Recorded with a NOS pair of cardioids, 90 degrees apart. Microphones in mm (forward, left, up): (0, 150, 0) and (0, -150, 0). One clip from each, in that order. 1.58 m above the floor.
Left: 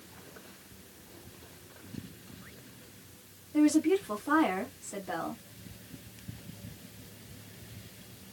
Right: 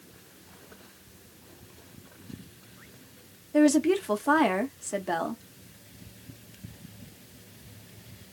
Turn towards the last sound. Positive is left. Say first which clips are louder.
# right 4 dB
turn(degrees=-50)